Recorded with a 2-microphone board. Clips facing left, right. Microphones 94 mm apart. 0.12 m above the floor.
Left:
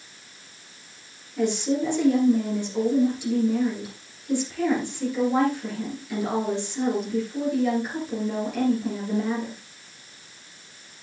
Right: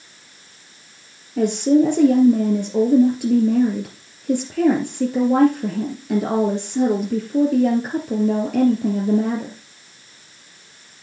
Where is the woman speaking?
55° right (ahead or behind), 2.5 m.